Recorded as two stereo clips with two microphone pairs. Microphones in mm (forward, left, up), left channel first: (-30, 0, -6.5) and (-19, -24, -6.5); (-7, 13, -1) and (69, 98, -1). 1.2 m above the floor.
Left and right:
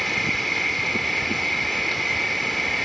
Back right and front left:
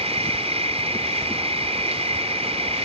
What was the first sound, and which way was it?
An insect, 30° left.